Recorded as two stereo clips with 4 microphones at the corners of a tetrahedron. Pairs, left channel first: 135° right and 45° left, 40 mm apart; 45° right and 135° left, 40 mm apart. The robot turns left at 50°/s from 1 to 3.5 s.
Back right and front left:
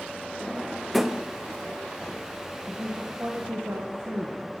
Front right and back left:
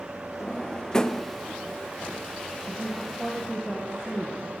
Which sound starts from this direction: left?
A woman speaking, at 2.7 s.